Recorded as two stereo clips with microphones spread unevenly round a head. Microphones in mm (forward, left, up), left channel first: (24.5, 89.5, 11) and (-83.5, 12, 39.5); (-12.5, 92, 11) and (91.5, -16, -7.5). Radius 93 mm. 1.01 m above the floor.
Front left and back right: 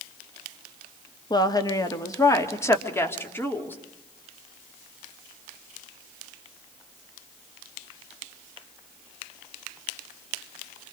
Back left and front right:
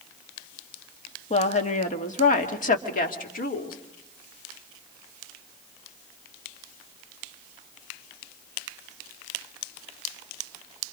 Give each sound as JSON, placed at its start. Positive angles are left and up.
{"t": 1.3, "sound": "a woman speaking", "azimuth_deg": 90, "distance_m": 2.0}